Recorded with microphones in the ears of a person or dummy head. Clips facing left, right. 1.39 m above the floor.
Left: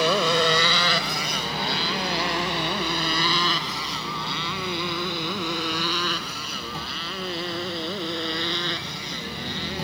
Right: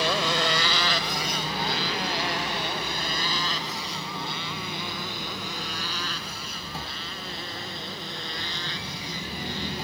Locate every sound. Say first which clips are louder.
0.0 s a motorcycle: left 5 dB; 75° left (ahead or behind); by 9.8 s 55° left (ahead or behind)